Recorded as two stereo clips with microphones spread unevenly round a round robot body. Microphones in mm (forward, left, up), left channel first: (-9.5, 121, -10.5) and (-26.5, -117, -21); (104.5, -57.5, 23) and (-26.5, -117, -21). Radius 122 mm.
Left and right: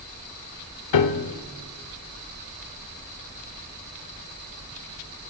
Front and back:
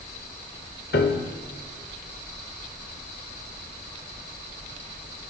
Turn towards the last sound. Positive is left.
turn(degrees=75)